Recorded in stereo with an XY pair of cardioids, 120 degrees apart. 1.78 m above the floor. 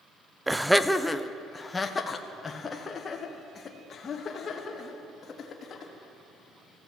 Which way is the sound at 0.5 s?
10° right.